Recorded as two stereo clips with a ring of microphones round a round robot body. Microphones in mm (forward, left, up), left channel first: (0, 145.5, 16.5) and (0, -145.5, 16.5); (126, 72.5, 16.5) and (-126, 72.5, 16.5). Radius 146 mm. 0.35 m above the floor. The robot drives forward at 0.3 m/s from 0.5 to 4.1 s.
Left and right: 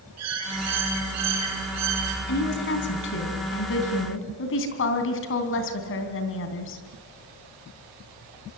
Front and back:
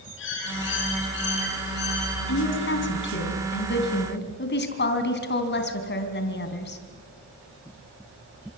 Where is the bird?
50° right, 4 m; by 2.2 s 60° right, 4 m.